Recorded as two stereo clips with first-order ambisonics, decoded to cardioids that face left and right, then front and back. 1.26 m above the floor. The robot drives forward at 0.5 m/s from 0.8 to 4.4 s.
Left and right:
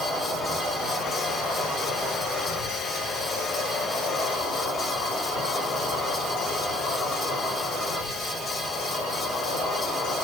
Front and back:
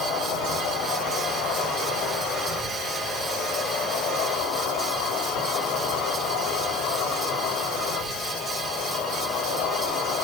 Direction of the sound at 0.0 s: 15° left.